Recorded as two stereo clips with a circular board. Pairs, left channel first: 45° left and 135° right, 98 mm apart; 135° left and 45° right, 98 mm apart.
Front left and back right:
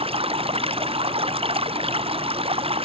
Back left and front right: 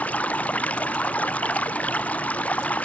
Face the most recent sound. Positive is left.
turn(degrees=-150)